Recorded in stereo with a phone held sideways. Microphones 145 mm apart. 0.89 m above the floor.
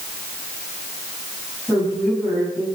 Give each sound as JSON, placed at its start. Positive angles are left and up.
{"t": 1.7, "sound": "a woman speaking", "side_deg": -5, "distance_m": 8.5}